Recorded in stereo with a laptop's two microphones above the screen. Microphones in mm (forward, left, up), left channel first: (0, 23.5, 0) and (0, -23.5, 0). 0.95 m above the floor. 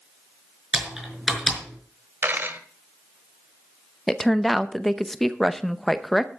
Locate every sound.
0.7 s typing on a keyboard: 10° right (ahead or behind), 5 m
2.2 s a dropped coin: 45° right (ahead or behind), 1.6 m
4.1 s a woman speaking: 5° left (ahead or behind), 0.7 m